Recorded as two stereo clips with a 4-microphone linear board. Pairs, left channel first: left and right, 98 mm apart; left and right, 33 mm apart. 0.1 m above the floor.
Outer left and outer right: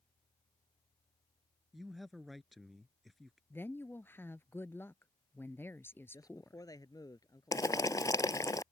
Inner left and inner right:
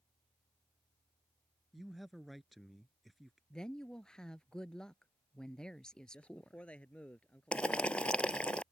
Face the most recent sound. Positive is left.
turn(degrees=35)  # may be behind; listen again after turning